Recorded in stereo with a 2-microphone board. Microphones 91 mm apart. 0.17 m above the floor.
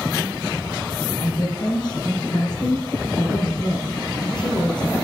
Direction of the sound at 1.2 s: 55° left (ahead or behind).